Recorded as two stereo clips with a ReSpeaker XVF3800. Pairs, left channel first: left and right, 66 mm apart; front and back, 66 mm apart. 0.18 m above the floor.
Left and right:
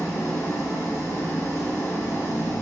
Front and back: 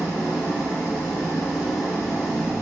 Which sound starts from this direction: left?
An engine running, at 0.0 s.